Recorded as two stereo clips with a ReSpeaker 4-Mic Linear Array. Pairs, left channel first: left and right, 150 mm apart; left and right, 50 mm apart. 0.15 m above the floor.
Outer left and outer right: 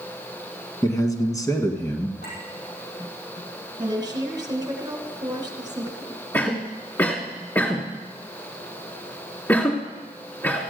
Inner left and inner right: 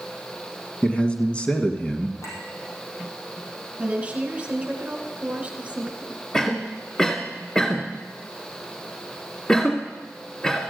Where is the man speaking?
25° left (ahead or behind), 1.5 m.